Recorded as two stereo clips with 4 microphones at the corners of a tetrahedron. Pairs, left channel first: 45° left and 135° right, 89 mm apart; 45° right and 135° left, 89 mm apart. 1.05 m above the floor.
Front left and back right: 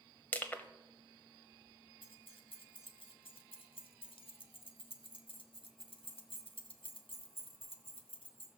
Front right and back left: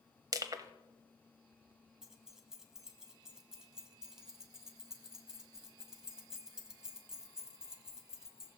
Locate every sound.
0.3 s crushing: 110° left, 1.1 m
2.0 s keys jangling: 50° left, 1.5 m